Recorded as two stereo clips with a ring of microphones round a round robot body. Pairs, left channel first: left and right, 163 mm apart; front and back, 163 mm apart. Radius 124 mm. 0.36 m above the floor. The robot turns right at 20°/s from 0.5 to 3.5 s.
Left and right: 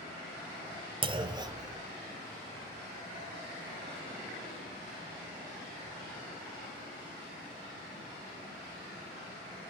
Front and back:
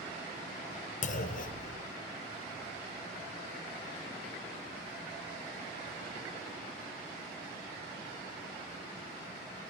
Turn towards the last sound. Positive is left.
turn(degrees=10)